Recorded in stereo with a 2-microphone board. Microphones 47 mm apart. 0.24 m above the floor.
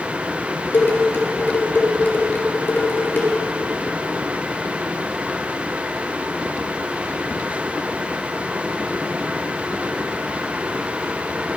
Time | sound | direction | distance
0.7 | dishes clattering | 45° left (ahead or behind) | 3.5 m